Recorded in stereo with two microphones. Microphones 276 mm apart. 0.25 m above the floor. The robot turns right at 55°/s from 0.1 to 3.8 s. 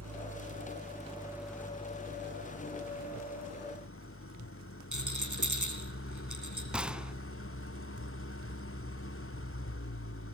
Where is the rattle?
90° right, 4.5 m.